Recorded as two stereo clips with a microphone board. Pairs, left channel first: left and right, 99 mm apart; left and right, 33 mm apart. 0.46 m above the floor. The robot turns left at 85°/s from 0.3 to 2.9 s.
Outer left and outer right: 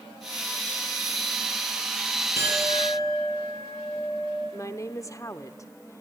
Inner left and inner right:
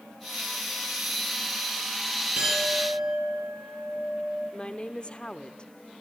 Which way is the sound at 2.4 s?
150° right.